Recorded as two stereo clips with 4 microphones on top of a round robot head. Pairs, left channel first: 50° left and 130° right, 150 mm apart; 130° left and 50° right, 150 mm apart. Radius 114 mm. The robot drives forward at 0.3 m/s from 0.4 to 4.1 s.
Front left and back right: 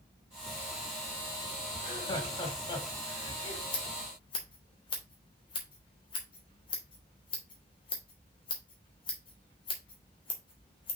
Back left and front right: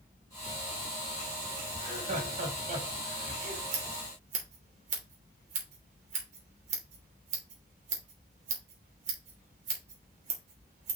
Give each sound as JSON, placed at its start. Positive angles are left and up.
{"t": 1.8, "sound": "laughter", "azimuth_deg": -15, "distance_m": 4.0}
{"t": 3.7, "sound": "scissors", "azimuth_deg": -10, "distance_m": 3.0}